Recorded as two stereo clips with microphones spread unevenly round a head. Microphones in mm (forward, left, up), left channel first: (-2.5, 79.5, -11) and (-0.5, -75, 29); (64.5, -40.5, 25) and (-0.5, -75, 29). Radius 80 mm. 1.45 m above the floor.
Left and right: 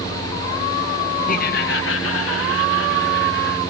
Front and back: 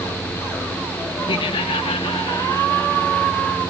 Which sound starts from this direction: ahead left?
Laughter, at 1.3 s.